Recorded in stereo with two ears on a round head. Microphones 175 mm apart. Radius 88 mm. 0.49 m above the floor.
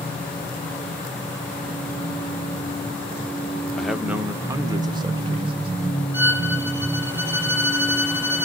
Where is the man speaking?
5° left (ahead or behind), 0.7 m; by 5.7 s 30° right (ahead or behind), 1.5 m.